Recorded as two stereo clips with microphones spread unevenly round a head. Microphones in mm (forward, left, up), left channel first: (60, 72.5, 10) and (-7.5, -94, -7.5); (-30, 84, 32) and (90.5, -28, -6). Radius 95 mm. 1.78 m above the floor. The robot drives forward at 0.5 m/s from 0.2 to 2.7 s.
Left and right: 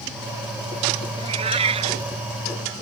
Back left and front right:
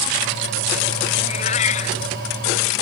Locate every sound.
1.2 s a cat meowing: 175° right